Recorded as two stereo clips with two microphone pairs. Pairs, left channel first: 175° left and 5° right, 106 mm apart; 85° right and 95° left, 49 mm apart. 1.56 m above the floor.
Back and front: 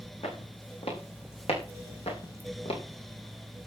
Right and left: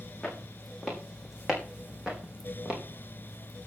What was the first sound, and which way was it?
Footsteps, 175° right.